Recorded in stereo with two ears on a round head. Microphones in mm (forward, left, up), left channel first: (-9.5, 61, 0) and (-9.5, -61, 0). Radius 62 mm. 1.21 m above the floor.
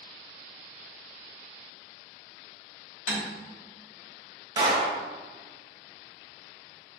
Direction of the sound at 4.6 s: 25° right (ahead or behind).